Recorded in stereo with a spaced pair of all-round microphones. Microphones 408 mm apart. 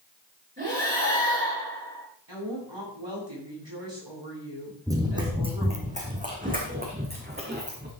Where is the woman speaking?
75° right (ahead or behind), 9 m.